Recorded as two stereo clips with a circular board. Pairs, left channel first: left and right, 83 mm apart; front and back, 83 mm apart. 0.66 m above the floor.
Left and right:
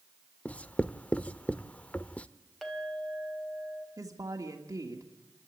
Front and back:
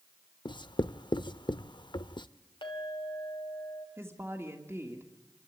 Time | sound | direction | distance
0.5 | writing | 20° left | 0.5 m
2.6 | a clink | 5° left | 2.5 m
4.0 | a woman speaking | 125° right | 1.5 m